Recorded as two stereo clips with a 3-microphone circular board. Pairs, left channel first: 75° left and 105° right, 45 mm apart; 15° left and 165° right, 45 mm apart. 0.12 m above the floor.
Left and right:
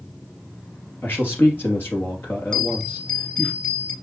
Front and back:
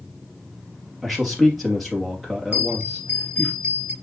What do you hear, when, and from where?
1.0 s a man speaking: 105° left, 3 m
2.5 s a bell: 140° left, 1.8 m